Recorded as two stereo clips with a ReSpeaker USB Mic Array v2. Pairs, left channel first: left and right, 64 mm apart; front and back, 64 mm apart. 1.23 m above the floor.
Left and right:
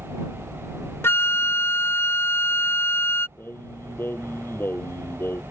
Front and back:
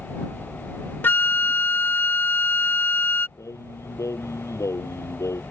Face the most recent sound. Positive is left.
turn(degrees=35)